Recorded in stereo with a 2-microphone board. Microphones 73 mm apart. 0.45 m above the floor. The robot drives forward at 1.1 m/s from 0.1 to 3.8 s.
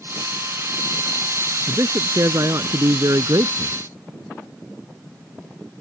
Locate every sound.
1.7 s a man speaking: 45° right (ahead or behind); by 3.8 s 60° right (ahead or behind)